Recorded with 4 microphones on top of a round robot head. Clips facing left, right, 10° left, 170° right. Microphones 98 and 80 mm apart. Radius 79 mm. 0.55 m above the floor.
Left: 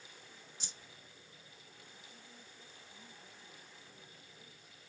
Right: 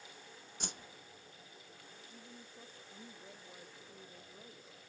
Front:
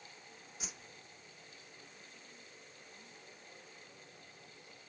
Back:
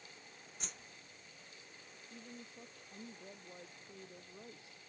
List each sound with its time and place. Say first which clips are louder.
0.6 s a whoosh: right 8 dB, front 1 dB; 75° right
2.1 s a woman speaking: right 4 dB, back 5 dB; 155° right